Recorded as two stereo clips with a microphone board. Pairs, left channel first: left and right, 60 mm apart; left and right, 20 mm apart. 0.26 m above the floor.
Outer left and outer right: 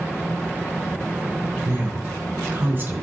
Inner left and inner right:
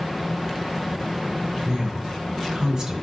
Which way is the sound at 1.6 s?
40° right (ahead or behind).